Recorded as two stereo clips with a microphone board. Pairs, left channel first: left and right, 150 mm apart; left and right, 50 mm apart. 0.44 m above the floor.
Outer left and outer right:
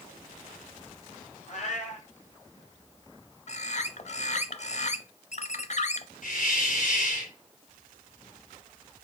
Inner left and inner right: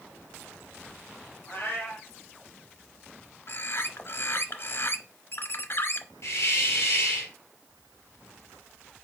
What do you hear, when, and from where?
1.5 s a cat meowing: 50° left (ahead or behind), 2.5 m
3.5 s a bird: 50° left (ahead or behind), 0.6 m
6.2 s a hiss: 65° left (ahead or behind), 3.5 m